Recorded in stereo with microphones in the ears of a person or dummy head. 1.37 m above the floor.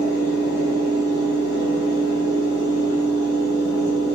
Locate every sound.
0.0 s a fan: 65° left (ahead or behind), 1.7 m